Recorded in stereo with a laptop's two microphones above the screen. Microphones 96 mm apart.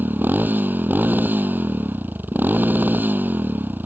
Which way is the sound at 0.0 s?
20° right (ahead or behind).